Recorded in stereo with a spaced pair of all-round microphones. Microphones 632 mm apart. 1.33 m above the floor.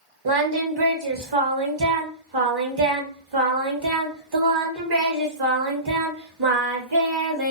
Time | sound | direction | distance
0.2 | singing | 40° right (ahead or behind) | 0.8 m